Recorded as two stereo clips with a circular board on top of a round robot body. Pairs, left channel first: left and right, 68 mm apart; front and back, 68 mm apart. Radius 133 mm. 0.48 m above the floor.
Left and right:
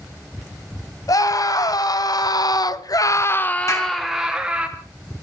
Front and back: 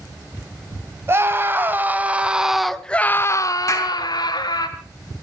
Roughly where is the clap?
Ahead left.